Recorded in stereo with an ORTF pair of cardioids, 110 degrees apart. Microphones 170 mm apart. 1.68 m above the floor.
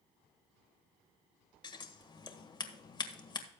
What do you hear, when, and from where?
1.6 s scissors: 25° left, 1.5 m